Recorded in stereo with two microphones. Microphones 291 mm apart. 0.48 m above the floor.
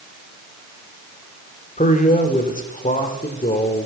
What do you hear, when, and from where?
1.8 s a man speaking: 25° left (ahead or behind), 1.2 m